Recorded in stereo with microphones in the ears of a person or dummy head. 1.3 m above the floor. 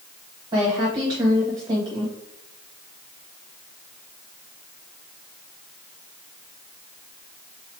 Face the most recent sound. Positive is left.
turn(degrees=-20)  # may be behind; listen again after turning